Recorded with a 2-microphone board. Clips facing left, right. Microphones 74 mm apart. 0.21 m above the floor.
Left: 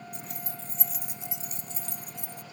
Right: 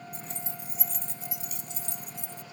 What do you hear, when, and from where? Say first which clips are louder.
0.1 s keys jangling: even; 40° right (ahead or behind); by 2.4 s 60° left (ahead or behind)